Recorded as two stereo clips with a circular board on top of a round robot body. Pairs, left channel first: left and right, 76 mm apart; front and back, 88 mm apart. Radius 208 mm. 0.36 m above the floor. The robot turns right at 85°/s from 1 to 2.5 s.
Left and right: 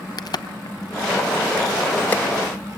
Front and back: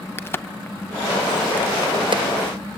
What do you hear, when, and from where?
0.2 s a crack: 60° left, 0.9 m; by 2.2 s 165° left, 0.9 m